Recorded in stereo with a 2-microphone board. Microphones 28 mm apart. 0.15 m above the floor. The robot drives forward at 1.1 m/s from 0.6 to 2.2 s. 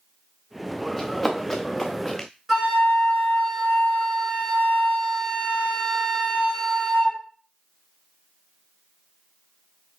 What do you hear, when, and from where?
1.0 s running footsteps: centre (ahead or behind), 1.6 m; by 2.3 s 10° left (ahead or behind), 1.1 m
2.5 s a flute: centre (ahead or behind), 2 m